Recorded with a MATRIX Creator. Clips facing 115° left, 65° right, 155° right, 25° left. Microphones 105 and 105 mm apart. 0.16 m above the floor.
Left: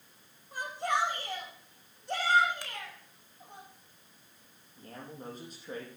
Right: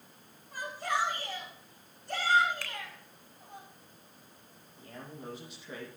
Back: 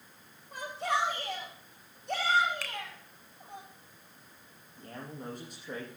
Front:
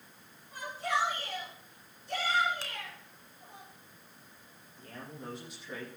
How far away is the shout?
About 8.5 m.